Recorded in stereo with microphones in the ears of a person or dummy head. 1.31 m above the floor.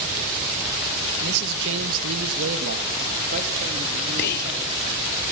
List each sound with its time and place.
1.2 s a man speaking: 60° right (ahead or behind), 1.9 m; by 5.2 s 35° right (ahead or behind), 4.5 m
4.2 s whispering: 55° left (ahead or behind), 0.7 m